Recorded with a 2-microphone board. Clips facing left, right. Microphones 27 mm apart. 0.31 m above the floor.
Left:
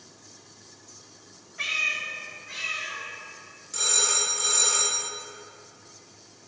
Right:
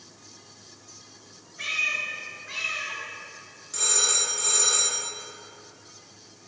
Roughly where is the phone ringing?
Centre.